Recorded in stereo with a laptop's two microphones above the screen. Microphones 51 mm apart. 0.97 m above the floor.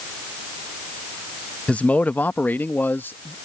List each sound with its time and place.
1.7 s a man speaking: 25° left (ahead or behind); by 3.3 s 45° left (ahead or behind)